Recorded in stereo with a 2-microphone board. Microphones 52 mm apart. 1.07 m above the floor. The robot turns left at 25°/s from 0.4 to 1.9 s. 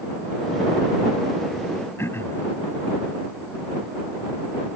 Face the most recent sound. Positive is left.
turn(degrees=55)  # may be behind; listen again after turning